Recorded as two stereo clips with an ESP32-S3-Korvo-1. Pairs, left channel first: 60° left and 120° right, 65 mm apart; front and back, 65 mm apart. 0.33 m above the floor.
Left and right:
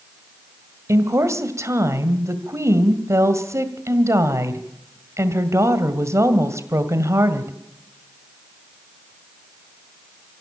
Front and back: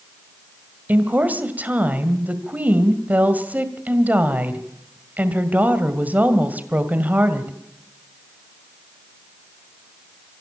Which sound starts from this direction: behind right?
A woman speaking, at 0.9 s.